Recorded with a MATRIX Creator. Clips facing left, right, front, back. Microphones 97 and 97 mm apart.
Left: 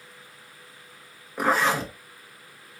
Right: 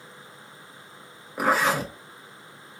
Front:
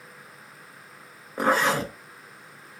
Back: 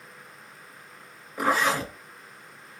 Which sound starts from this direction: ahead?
A zipper, at 1.4 s.